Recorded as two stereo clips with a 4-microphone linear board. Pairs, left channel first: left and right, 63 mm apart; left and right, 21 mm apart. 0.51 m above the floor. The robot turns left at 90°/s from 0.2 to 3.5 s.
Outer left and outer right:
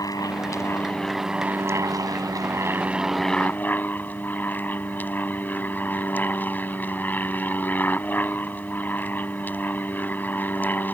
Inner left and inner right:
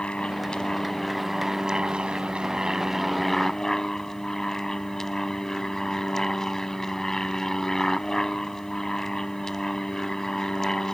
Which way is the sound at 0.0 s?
85° left.